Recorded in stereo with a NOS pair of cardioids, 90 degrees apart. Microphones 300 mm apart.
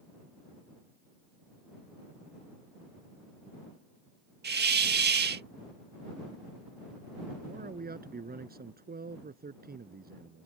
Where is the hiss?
35° right.